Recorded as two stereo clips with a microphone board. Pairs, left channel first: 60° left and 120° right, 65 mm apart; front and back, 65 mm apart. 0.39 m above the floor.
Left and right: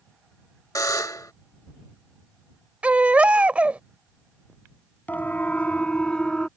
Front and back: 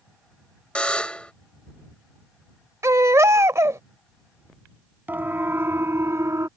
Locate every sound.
0.8 s a buzzer: 70° left
2.8 s a baby crying: 175° left
5.1 s a siren: 125° left; by 6.5 s 145° left